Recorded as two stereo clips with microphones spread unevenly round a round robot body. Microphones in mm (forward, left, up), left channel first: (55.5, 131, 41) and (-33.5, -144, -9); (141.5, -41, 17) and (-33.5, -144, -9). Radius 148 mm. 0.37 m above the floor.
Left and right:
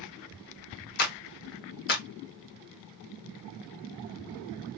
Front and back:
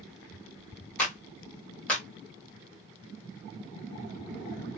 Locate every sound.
1.0 s a clap: 120° left, 1.1 m